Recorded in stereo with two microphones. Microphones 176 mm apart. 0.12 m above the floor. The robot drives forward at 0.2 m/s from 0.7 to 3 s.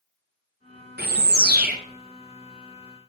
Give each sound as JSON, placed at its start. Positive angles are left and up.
{"t": 1.0, "sound": "a bird", "side_deg": -65, "distance_m": 0.7}